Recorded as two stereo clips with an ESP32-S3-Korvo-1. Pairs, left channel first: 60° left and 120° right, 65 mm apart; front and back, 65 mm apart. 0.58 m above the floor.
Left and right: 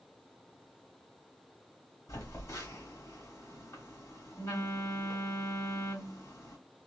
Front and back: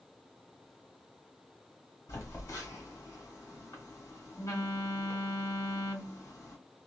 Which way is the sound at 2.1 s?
35° left.